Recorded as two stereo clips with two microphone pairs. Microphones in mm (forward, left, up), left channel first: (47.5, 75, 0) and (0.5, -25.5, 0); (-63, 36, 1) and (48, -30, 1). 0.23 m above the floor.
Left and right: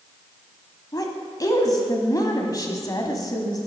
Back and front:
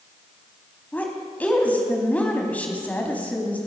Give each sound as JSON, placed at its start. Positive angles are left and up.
{"t": 0.9, "sound": "a woman speaking", "azimuth_deg": 80, "distance_m": 1.5}